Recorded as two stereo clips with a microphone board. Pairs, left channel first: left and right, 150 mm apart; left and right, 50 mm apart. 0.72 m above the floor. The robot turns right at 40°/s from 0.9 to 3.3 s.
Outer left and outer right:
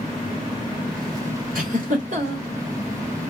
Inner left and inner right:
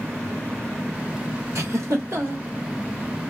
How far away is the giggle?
About 2.5 m.